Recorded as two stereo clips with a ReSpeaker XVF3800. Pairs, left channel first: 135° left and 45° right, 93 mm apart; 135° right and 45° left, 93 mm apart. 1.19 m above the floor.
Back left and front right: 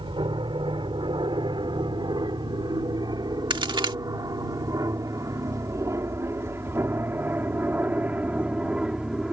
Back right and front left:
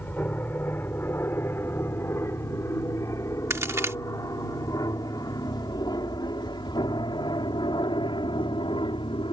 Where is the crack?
15° right.